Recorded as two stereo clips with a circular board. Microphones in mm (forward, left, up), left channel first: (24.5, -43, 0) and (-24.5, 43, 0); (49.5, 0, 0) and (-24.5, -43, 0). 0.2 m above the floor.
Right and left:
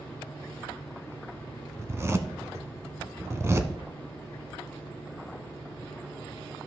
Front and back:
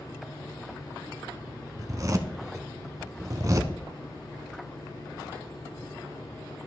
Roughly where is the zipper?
Behind.